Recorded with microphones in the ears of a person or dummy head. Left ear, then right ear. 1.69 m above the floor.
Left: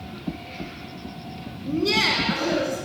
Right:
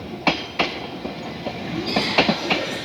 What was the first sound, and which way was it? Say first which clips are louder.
Laughter: left 3 dB; 60° left (ahead or behind).